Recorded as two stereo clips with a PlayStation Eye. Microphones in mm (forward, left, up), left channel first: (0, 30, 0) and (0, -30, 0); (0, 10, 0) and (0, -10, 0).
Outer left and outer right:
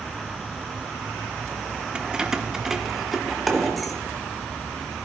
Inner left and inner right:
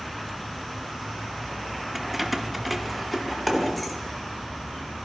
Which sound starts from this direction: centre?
Keys jangling, at 1.9 s.